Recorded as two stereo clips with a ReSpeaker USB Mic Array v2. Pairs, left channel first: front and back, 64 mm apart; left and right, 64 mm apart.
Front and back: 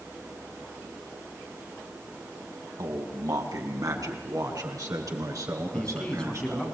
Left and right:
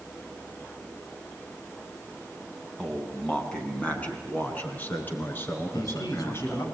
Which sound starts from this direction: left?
A man speaking, at 5.7 s.